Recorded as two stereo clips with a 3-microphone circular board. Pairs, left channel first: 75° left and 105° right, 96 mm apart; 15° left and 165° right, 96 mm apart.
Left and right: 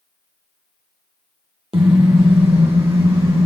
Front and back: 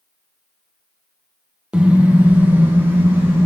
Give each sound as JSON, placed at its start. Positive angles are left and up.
{"t": 1.7, "sound": "a car horn", "azimuth_deg": -85, "distance_m": 2.5}